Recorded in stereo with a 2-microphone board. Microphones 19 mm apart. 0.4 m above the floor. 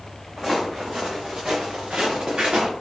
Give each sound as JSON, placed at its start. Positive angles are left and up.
{"t": 0.4, "sound": "footsteps", "side_deg": -20, "distance_m": 1.4}